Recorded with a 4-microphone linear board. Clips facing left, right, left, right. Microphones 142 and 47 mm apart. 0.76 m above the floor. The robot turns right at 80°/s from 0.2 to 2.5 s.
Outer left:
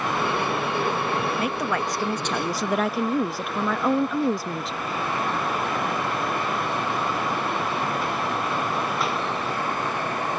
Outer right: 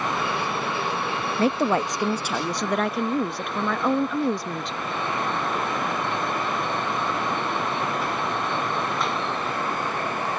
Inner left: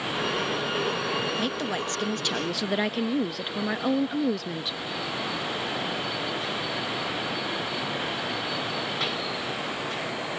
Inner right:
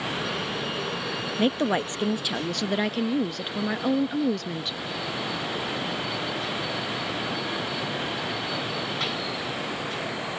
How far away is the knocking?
No knocking in this recording.